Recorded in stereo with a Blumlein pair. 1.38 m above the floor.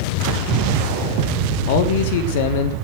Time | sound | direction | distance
1.7 | a man speaking | 50° left | 1.4 m